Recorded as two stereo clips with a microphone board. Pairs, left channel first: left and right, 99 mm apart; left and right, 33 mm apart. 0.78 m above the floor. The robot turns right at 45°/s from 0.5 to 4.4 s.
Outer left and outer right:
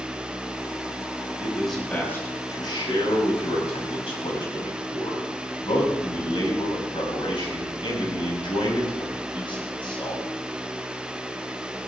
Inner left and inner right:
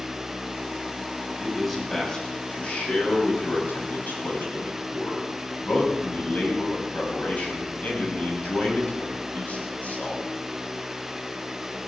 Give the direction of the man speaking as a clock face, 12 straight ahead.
12 o'clock.